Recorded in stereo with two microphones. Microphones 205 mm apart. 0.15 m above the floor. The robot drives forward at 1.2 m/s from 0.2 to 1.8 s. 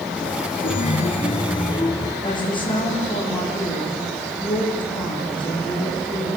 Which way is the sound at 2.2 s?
25° left (ahead or behind).